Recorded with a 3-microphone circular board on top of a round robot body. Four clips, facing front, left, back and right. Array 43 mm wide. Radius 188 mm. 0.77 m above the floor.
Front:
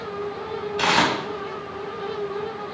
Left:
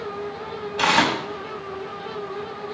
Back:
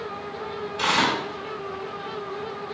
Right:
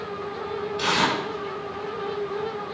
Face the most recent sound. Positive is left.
turn(degrees=55)